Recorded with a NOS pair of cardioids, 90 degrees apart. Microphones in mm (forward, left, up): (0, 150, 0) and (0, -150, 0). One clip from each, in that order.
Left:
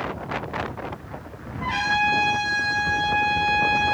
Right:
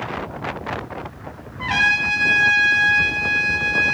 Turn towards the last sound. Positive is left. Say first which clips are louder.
# right 4 dB
turn(degrees=-65)